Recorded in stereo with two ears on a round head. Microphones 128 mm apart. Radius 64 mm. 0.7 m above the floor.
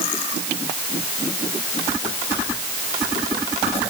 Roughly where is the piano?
No piano in this recording.